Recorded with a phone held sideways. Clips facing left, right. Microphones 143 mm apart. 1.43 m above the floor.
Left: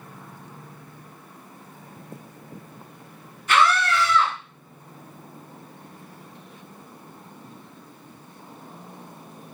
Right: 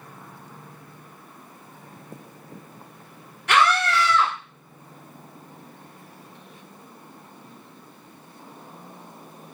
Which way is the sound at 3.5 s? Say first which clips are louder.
Even; 70° right (ahead or behind).